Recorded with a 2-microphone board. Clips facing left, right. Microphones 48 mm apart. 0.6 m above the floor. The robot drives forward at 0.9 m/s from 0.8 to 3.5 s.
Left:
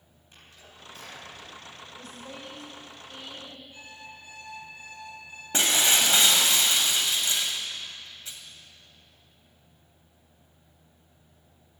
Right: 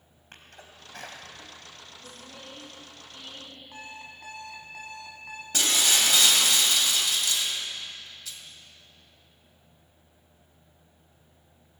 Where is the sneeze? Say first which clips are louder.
Right 3 dB; 60° right (ahead or behind), 3 m; by 1.6 s 50° right (ahead or behind), 3.5 m.